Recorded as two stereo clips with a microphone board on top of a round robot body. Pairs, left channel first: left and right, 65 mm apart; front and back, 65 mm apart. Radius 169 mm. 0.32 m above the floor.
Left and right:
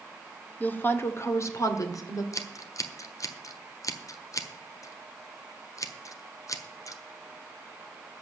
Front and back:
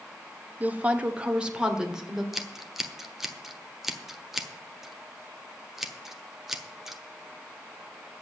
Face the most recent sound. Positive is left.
turn(degrees=95)